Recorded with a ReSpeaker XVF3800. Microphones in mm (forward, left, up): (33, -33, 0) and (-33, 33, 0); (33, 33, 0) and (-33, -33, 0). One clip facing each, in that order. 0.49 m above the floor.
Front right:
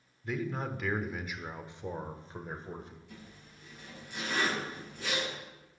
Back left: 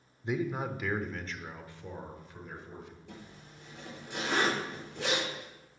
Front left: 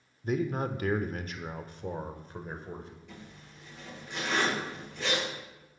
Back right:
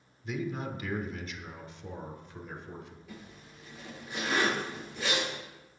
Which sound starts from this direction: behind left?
A zipper, at 3.1 s.